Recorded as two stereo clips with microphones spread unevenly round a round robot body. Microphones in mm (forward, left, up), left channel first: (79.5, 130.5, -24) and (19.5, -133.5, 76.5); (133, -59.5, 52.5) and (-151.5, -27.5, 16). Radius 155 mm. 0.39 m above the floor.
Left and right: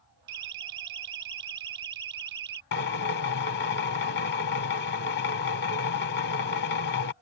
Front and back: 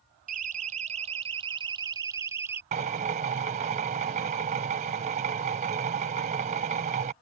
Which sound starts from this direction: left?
A drill, at 2.7 s.